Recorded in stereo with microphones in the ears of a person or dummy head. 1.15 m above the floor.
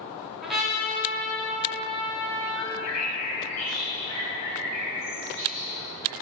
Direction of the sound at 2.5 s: 45° left (ahead or behind).